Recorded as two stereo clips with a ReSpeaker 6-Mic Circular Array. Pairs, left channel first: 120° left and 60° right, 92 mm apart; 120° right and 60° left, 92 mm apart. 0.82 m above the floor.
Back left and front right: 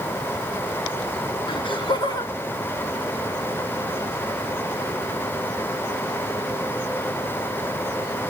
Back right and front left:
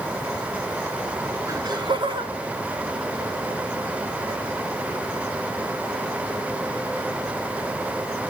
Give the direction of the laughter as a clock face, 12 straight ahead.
8 o'clock.